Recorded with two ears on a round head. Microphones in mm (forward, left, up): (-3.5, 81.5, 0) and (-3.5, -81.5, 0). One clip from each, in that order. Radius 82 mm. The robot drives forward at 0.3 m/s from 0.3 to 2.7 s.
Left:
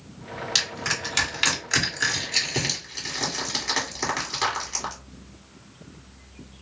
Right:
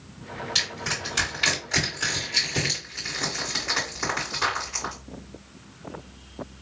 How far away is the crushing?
About 2 m.